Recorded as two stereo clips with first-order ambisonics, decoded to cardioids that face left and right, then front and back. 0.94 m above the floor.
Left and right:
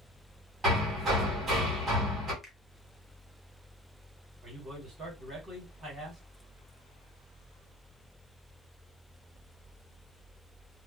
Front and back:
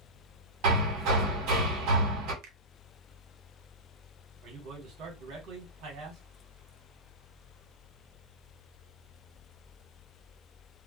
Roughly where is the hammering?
Behind right.